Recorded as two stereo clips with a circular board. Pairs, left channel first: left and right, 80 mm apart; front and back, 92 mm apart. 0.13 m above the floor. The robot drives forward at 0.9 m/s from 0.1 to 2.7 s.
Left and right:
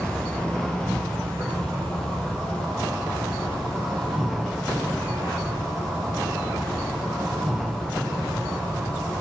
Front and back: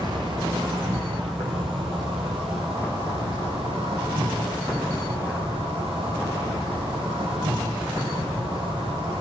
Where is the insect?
165° left, 2 m; by 9.2 s 175° left, 4.5 m.